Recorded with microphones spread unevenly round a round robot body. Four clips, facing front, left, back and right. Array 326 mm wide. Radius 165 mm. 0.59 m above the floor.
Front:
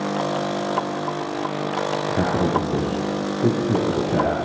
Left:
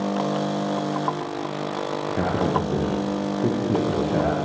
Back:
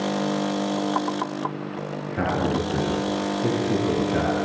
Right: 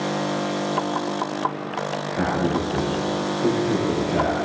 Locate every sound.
2.1 s a man speaking: 20° left, 8 m